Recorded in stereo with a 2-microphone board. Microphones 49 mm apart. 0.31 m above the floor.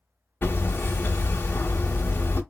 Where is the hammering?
45° left (ahead or behind), 0.8 m.